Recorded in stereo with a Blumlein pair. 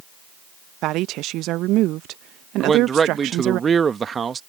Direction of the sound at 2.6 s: 20° right.